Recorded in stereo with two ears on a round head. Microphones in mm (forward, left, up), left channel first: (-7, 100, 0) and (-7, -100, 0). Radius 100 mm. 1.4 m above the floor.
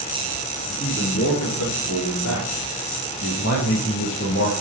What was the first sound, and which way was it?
A man speaking, 65° left (ahead or behind).